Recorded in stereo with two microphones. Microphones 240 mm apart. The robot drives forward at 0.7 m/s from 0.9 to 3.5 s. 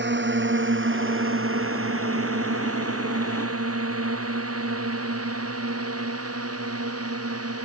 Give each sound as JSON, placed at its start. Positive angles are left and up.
{"t": 0.0, "sound": "a drone", "side_deg": -50}